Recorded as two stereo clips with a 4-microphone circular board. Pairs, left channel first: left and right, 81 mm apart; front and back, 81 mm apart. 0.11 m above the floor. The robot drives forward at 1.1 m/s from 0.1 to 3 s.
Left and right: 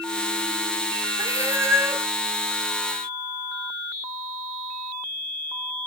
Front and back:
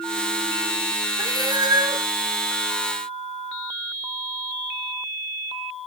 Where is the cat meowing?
135° right, 1.5 m; by 2.1 s 155° right, 2 m.